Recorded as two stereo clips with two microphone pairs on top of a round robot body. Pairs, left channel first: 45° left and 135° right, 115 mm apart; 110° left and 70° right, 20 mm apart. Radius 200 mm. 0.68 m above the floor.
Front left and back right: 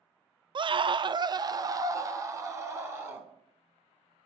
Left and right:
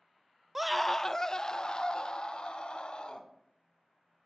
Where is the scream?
125° right, 0.6 m; by 3.3 s 155° left, 2 m.